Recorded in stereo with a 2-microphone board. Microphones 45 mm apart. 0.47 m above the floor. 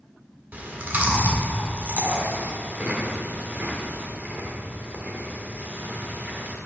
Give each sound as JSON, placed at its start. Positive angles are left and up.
{"t": 0.5, "sound": "chewing", "side_deg": -40, "distance_m": 1.6}